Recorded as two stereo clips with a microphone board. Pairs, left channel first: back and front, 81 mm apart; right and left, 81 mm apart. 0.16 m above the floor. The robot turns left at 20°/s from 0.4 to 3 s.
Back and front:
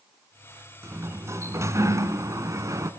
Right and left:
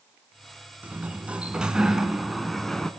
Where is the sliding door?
30° left, 1.4 m; by 2.9 s 10° right, 1.4 m.